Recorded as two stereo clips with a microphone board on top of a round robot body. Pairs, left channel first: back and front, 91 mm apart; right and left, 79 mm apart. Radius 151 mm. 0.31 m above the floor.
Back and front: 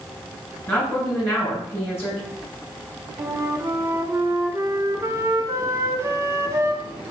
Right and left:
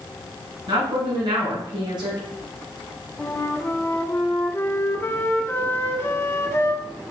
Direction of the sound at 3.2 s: 40° right.